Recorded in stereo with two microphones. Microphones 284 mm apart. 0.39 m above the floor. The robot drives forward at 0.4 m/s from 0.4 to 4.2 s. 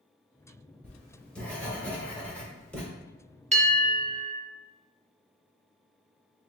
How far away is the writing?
About 2.0 m.